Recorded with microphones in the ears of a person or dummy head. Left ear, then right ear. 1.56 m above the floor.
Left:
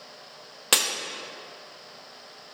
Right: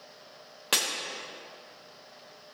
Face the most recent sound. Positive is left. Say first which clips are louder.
# left 4 dB
turn(degrees=15)  # may be behind; listen again after turning